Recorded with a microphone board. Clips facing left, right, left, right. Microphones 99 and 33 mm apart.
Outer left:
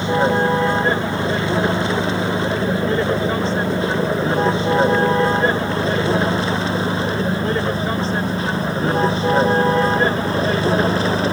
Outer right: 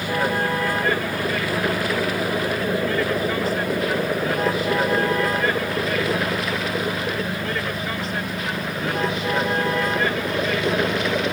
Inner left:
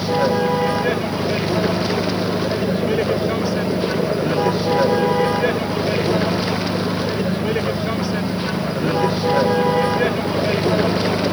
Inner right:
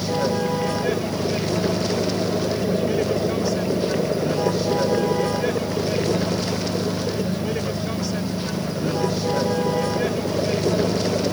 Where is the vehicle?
25° left (ahead or behind); by 11.3 s 30° left (ahead or behind).